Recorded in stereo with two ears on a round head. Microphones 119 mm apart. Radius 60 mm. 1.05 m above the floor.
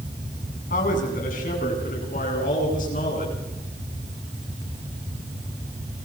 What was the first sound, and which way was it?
A man speaking, 70° left (ahead or behind).